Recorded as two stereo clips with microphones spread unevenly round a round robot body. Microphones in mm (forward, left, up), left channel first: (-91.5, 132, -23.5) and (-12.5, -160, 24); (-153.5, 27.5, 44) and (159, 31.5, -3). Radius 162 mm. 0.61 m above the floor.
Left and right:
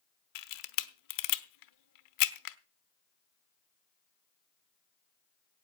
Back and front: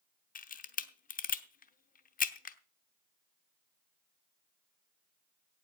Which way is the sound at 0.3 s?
115° left.